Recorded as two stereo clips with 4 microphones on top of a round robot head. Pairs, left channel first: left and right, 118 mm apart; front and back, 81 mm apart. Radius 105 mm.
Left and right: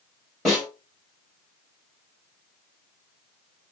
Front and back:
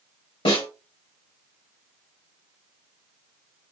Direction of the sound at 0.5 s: Straight ahead.